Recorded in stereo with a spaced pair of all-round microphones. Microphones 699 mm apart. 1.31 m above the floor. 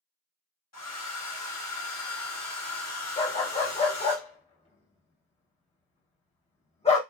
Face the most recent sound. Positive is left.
turn(degrees=10)  # may be behind; listen again after turning